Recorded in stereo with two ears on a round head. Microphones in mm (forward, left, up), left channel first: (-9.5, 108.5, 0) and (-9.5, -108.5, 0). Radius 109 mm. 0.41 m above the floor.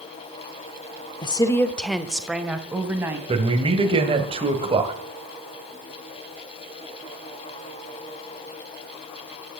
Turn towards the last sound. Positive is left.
turn(degrees=-25)  # may be behind; listen again after turning